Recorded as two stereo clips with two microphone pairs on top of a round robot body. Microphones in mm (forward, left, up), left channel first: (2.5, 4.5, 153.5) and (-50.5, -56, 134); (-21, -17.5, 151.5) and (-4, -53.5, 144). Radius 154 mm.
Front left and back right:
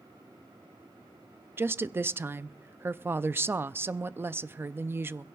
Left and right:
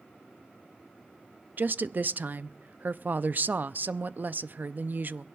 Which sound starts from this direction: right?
A woman speaking, at 1.6 s.